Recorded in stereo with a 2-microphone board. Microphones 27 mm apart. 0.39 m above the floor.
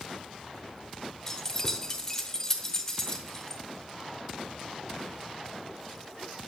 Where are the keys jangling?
20° left (ahead or behind), 0.7 m.